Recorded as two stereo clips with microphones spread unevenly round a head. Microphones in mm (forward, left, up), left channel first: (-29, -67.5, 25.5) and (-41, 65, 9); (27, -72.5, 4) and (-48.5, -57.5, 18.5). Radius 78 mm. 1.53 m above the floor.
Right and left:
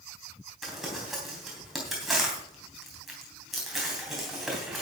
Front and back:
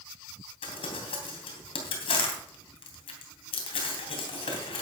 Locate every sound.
0.6 s crumpling: 5° left, 3 m